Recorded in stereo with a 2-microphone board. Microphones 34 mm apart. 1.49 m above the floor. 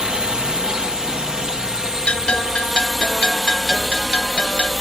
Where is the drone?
25° right (ahead or behind); by 4.8 s 5° right (ahead or behind).